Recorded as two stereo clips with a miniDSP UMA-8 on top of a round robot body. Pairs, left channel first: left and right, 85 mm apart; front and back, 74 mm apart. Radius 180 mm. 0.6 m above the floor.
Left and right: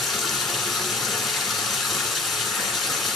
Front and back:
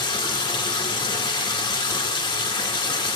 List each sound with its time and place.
0.0 s running water: straight ahead, 1.9 m